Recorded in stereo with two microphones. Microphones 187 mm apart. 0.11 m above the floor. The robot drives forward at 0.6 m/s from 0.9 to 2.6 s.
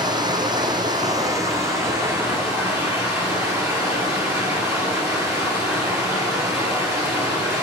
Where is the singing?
I don't hear singing.